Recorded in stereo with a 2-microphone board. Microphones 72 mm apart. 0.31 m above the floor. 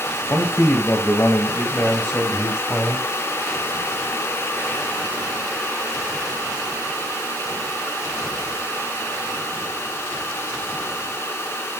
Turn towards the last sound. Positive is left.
turn(degrees=20)  # may be behind; listen again after turning